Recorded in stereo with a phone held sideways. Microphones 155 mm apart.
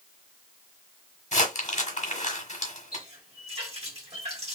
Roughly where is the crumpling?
Left.